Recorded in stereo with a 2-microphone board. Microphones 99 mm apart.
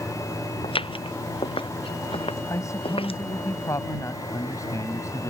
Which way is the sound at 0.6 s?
70° left (ahead or behind).